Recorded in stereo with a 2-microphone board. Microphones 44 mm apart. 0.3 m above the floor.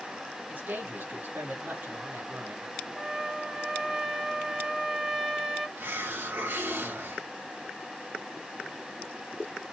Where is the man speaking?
50° right (ahead or behind), 2 m; by 2.7 s 60° right (ahead or behind), 2.5 m.